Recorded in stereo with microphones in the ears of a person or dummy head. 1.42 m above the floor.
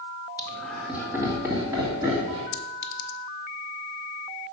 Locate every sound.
0.4 s laughter: 15° left (ahead or behind), 1.1 m; by 2.4 s 25° right (ahead or behind), 3.5 m
2.5 s a clink: 65° left (ahead or behind), 0.6 m